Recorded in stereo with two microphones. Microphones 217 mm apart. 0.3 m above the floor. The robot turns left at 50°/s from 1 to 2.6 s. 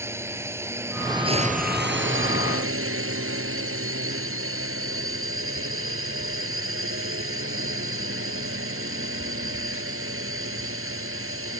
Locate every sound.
0.0 s a drone: 10° right; by 11.6 s 90° right